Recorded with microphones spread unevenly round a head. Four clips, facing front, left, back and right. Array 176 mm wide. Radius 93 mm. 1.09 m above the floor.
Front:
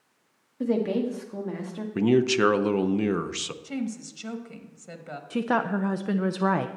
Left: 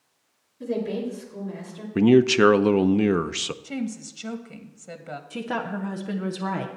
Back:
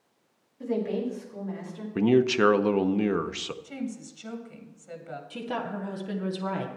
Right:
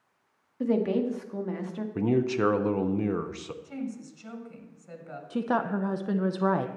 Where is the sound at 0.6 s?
45° right, 1.6 m.